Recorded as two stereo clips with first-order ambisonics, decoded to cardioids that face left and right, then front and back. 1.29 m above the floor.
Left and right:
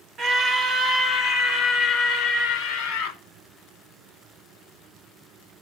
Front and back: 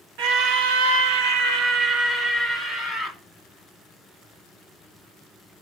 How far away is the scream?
About 1.8 m.